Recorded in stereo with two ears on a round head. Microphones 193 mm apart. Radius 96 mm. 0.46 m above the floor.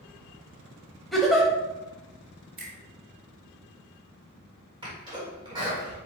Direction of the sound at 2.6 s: 45° right (ahead or behind).